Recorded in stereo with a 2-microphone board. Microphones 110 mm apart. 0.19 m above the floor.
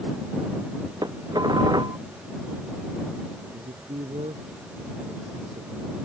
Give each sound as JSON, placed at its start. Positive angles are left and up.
{"t": 1.0, "sound": "dishes clattering", "side_deg": -40}
{"t": 3.5, "sound": "a man speaking", "side_deg": -75}